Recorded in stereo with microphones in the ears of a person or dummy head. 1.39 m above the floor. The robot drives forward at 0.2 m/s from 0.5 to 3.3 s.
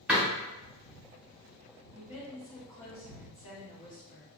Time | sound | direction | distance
0.1 | a door slam | 5° right (ahead or behind) | 0.6 m
1.9 | a woman speaking | 30° left (ahead or behind) | 1.0 m